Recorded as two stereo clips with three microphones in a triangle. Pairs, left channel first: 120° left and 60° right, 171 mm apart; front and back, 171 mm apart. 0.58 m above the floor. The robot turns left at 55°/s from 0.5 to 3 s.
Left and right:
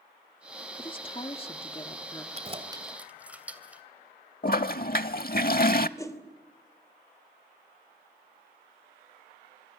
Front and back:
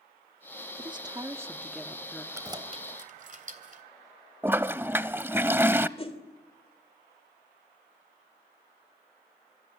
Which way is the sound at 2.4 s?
105° right.